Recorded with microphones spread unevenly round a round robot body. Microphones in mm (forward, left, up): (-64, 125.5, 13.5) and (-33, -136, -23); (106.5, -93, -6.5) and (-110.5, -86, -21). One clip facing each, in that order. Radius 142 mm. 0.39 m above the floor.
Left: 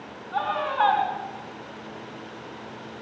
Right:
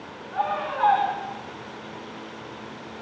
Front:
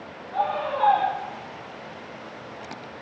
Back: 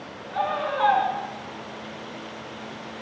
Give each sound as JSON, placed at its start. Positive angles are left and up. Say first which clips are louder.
{"t": 0.3, "sound": "a scream", "louder": "left 1 dB, even", "azimuth_deg": 110, "distance_m": 4.0}